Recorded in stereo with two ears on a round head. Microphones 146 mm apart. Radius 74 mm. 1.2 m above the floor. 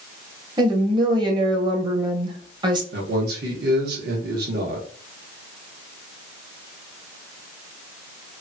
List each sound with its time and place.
0.6 s a woman speaking: 30° right (ahead or behind), 0.8 m
2.9 s a man speaking: 65° right (ahead or behind), 1.1 m